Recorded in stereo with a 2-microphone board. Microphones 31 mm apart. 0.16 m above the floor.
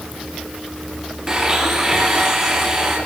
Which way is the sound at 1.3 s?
20° right (ahead or behind).